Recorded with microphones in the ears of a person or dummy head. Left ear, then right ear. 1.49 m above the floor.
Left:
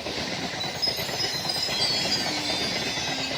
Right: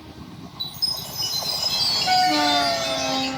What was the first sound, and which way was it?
A chime, 15° right (ahead or behind).